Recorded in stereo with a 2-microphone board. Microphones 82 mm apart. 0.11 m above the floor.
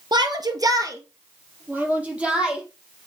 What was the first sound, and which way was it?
A shout, 55° right (ahead or behind).